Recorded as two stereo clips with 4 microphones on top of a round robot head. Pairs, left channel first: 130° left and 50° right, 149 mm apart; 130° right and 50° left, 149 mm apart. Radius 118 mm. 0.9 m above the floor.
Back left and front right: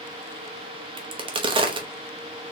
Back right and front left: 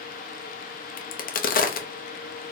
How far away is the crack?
About 0.8 m.